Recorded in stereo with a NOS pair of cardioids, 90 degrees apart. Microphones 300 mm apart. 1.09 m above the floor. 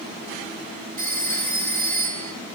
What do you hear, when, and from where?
1.0 s a phone ringing: 30° right, 4.5 m